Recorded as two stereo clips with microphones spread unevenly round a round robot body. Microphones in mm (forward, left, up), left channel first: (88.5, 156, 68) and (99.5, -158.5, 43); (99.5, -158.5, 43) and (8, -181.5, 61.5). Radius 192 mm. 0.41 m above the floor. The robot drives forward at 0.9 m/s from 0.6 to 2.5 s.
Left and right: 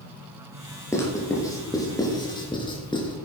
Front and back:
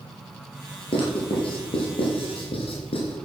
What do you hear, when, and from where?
0.9 s writing: 10° left, 4.5 m; by 3.2 s 15° left, 3 m